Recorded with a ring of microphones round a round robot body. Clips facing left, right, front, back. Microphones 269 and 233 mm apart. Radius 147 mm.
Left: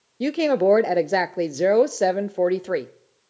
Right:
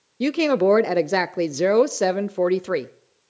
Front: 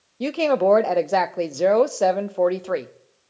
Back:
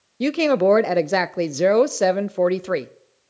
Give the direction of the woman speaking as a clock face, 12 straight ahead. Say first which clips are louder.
Right 1 dB, back 2 dB; 5 o'clock.